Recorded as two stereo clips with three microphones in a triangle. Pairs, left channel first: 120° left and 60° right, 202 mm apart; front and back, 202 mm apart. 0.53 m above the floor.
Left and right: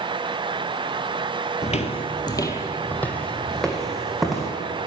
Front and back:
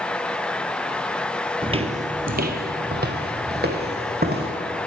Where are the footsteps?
135° left, 0.6 m; by 4.5 s 150° right, 1.9 m.